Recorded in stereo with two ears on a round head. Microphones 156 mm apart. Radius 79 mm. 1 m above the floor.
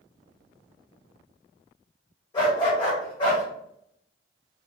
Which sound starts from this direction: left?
A dog barking, at 2.3 s.